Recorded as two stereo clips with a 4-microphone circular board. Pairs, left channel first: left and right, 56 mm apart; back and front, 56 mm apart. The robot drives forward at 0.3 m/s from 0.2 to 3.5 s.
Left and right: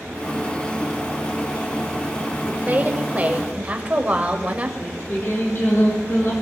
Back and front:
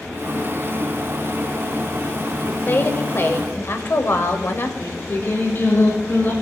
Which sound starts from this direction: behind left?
Singing, at 4.8 s.